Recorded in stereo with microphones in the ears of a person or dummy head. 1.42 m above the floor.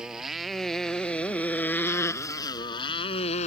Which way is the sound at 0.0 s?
5° right (ahead or behind).